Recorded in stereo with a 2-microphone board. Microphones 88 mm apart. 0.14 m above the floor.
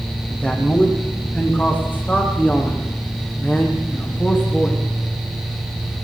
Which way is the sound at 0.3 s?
15° left (ahead or behind).